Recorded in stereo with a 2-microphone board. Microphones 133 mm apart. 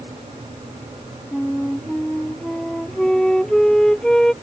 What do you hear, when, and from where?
1.3 s a flute: 5° left (ahead or behind)